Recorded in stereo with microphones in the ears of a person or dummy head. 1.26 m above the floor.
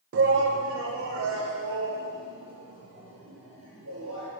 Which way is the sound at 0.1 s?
65° right (ahead or behind).